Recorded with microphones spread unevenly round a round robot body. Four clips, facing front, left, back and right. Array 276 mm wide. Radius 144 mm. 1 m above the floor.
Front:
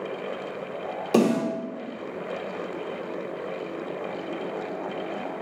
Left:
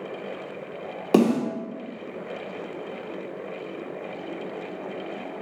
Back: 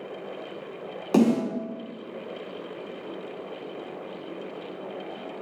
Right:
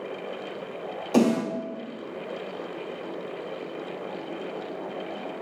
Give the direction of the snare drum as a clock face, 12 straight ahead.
9 o'clock.